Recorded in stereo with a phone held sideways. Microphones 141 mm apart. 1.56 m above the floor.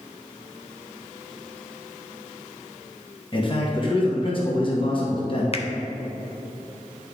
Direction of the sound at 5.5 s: 45° left (ahead or behind).